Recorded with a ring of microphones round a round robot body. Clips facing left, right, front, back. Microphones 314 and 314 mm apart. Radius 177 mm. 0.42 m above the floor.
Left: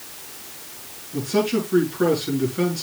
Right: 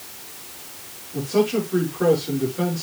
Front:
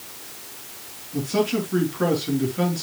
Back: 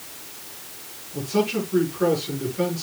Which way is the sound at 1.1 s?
40° left.